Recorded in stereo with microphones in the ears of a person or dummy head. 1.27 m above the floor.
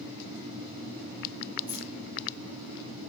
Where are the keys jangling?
10° right (ahead or behind), 3.5 m.